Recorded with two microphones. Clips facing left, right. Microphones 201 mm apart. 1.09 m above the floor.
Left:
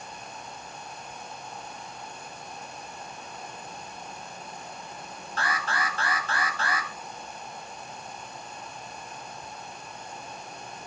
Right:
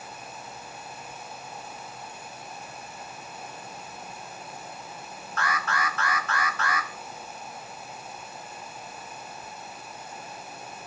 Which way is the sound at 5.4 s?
30° left (ahead or behind).